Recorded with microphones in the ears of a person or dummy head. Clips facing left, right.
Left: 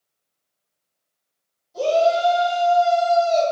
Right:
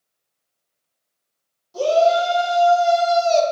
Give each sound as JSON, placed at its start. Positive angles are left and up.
{"t": 1.7, "sound": "a shout", "side_deg": -80, "distance_m": 1.8}